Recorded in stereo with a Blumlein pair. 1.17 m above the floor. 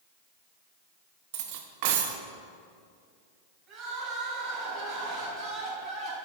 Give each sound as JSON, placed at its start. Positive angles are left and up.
{"t": 1.3, "sound": "cutlery clinking", "azimuth_deg": -50, "distance_m": 0.9}
{"t": 3.7, "sound": "crying", "azimuth_deg": -30, "distance_m": 3.5}